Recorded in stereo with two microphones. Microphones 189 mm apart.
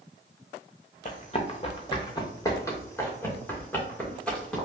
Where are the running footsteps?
40° left (ahead or behind), 1.0 m; by 4.6 s 5° left (ahead or behind), 2.5 m.